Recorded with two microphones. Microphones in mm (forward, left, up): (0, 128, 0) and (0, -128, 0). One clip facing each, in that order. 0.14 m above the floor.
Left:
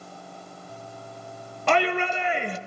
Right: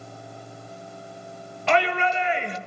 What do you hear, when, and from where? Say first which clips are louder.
1.7 s a shout: even; 50° left (ahead or behind), 3 m